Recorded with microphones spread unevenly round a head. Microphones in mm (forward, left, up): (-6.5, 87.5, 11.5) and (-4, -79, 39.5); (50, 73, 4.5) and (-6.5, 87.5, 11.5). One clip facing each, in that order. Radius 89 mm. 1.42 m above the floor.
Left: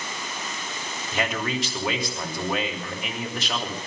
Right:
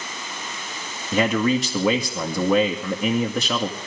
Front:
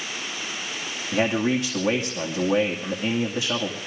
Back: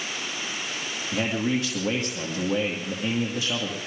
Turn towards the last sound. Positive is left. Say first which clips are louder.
# right 8 dB, front 4 dB
turn(degrees=-95)